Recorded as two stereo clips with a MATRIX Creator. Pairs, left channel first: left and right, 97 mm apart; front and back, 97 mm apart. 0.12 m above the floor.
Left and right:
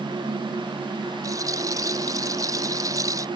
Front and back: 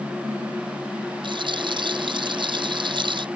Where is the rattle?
145° right.